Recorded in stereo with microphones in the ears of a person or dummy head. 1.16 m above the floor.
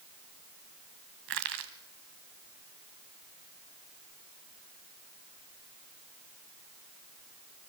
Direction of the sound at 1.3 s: 60° right (ahead or behind).